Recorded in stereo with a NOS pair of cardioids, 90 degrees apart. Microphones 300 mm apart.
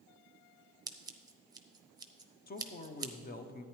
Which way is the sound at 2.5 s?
30° left.